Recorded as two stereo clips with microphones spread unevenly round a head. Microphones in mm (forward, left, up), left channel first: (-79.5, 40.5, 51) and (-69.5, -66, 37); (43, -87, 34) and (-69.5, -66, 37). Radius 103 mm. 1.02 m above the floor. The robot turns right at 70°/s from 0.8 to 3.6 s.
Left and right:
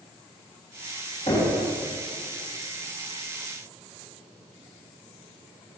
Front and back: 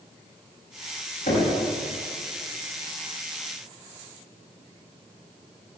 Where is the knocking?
35° left, 6 m; by 1.5 s 55° left, 6 m.